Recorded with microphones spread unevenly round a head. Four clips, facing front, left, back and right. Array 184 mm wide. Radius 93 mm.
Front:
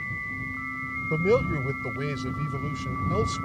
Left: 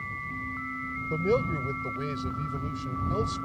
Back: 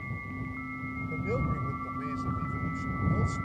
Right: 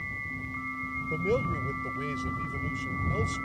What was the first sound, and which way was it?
A man speaking, 10° left.